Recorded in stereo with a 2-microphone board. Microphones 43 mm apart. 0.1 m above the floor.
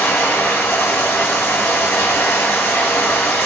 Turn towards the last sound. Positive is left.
turn(degrees=80)